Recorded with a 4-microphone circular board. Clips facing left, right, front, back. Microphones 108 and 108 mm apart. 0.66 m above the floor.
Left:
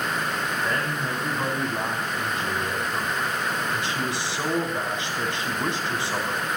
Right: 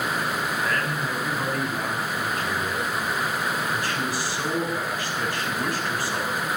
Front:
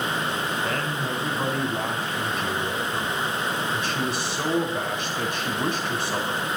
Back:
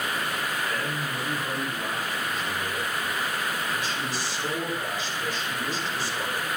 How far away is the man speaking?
About 5.5 m.